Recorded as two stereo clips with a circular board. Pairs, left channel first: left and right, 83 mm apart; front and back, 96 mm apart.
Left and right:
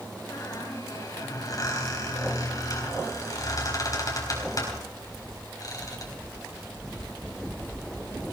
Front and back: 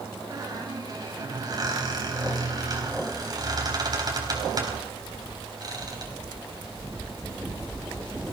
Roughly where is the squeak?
Behind left.